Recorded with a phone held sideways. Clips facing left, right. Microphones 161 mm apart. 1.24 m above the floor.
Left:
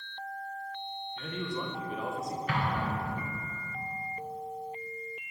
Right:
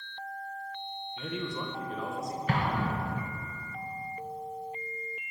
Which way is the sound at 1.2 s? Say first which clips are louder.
Right 1 dB; 15° right (ahead or behind).